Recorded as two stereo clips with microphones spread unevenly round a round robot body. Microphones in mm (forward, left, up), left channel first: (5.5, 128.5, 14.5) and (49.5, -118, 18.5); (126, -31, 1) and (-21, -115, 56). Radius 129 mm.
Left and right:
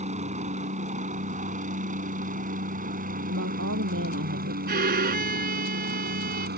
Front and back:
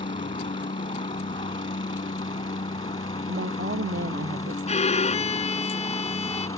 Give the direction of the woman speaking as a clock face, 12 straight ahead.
4 o'clock.